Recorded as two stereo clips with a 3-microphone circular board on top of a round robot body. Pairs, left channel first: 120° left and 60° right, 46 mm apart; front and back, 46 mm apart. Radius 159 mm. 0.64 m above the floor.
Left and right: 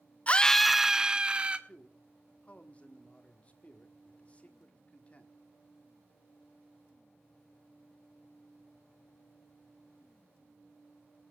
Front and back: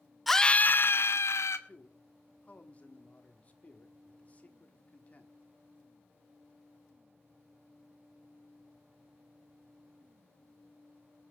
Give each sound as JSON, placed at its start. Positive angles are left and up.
{"t": 0.3, "sound": "a scream", "azimuth_deg": 90, "distance_m": 0.5}
{"t": 1.7, "sound": "a man speaking", "azimuth_deg": 60, "distance_m": 1.8}